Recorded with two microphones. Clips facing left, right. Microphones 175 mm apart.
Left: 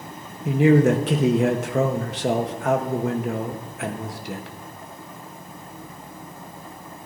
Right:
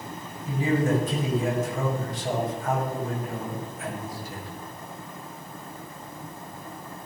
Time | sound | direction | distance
0.5 | a man speaking | 75° left (ahead or behind) | 1.2 m